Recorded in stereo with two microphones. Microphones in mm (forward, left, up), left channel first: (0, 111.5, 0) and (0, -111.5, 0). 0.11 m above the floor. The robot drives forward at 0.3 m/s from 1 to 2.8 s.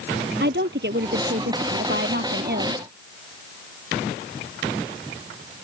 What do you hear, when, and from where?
0.4 s a woman speaking: 50° right (ahead or behind); by 2.8 s 45° right (ahead or behind)